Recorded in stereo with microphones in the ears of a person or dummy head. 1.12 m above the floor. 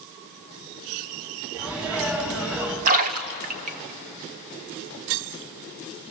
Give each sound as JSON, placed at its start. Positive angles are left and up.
{"t": 1.5, "sound": "a sneeze", "side_deg": -10, "distance_m": 8.5}
{"t": 2.9, "sound": "a splash", "side_deg": -45, "distance_m": 1.2}